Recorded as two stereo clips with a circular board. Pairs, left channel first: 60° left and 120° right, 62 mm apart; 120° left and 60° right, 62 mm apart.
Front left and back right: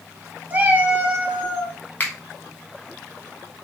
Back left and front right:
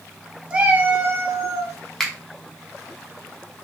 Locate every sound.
0.5 s a cat meowing: 110° right, 0.8 m; by 1.8 s 60° right, 1.2 m
2.0 s a finger snap: 45° left, 0.9 m